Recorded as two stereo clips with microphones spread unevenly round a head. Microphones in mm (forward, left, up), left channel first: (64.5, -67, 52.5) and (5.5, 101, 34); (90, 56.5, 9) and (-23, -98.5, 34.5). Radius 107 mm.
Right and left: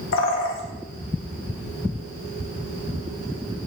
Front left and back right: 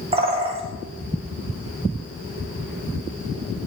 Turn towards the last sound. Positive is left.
turn(degrees=-65)